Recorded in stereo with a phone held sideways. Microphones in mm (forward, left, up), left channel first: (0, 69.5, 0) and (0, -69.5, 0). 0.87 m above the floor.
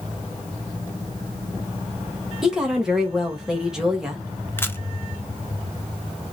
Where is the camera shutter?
15° left (ahead or behind), 0.6 m.